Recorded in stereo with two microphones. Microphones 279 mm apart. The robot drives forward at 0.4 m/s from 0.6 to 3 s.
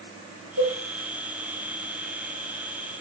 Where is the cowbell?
80° right, 8 m.